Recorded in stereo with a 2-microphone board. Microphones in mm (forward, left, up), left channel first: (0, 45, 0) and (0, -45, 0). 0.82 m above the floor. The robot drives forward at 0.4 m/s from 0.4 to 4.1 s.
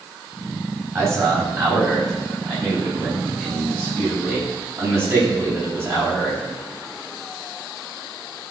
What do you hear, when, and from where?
0.9 s a man speaking: 35° right (ahead or behind), 4.5 m; by 6.4 s 25° right (ahead or behind), 5.5 m